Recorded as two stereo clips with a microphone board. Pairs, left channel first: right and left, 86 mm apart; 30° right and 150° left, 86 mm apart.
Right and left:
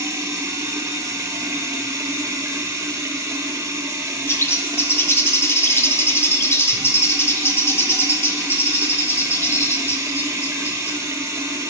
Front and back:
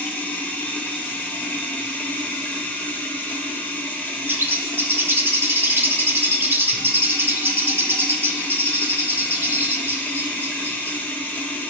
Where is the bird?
150° right, 0.5 m.